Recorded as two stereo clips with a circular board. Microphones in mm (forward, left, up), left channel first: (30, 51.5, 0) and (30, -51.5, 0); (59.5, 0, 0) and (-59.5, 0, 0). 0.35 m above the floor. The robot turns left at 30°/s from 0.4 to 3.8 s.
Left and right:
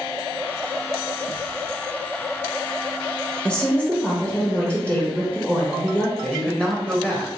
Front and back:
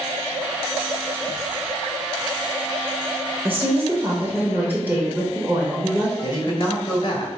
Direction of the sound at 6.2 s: 15° left.